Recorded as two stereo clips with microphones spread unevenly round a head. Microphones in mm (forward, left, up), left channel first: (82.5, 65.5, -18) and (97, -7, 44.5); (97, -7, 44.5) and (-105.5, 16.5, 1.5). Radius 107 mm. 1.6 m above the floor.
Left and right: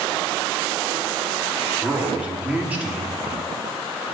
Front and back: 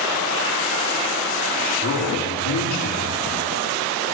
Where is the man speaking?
10° right, 4 m.